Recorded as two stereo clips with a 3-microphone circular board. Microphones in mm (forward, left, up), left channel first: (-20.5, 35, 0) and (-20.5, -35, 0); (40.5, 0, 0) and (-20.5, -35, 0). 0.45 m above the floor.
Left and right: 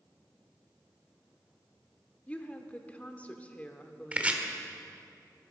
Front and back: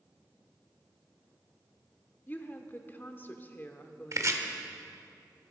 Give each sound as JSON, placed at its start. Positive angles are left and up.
{"t": 2.3, "sound": "a woman speaking", "azimuth_deg": 45, "distance_m": 0.9}
{"t": 4.1, "sound": "chopping", "azimuth_deg": -155, "distance_m": 1.2}